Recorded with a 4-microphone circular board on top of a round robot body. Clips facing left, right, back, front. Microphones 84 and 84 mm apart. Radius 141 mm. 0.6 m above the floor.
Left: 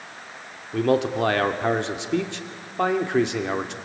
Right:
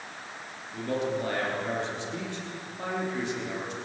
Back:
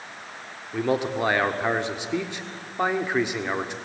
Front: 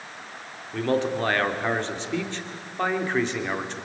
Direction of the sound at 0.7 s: 100° left.